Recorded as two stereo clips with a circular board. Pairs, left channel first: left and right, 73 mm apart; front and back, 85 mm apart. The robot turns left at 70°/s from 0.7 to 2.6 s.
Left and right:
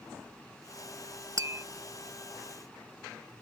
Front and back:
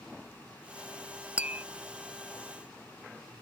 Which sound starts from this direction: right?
Tapping, at 1.4 s.